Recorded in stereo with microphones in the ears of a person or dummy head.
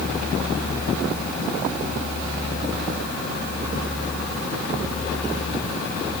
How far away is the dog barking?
No dog barking in this recording.